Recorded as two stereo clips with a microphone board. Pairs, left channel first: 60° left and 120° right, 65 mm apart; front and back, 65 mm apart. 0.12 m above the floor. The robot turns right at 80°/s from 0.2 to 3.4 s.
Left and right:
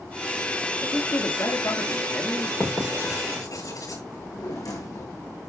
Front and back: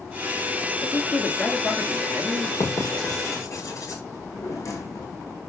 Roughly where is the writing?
Ahead right.